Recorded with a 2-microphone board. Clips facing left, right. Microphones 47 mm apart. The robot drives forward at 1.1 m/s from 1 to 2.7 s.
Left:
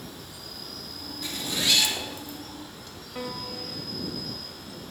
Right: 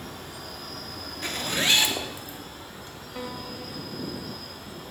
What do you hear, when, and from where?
0.0 s an insect: 45° right (ahead or behind), 1.0 m; by 4.9 s 25° right (ahead or behind), 1.6 m
1.2 s a zipper: 45° right (ahead or behind), 0.6 m; by 2.4 s 20° right (ahead or behind), 1.3 m
3.1 s a piano: 10° left (ahead or behind), 0.9 m